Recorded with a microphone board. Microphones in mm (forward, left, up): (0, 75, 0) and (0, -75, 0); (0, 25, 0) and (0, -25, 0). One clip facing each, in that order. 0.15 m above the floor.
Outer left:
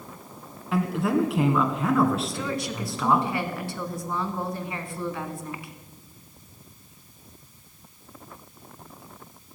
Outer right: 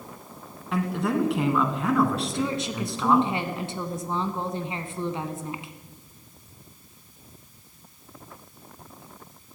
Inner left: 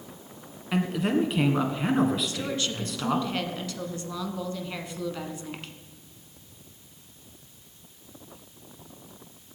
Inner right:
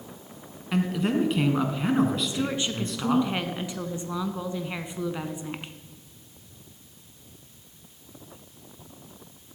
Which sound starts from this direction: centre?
A man speaking, at 0.7 s.